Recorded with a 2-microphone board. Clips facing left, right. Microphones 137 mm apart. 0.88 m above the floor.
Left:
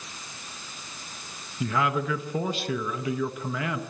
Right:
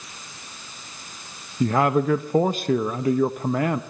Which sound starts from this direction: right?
A man speaking, at 1.6 s.